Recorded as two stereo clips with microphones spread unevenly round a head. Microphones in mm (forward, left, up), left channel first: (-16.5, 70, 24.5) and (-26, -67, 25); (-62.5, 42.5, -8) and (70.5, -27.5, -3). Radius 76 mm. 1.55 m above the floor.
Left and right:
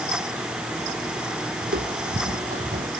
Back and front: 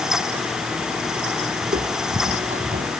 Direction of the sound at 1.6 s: 70° right.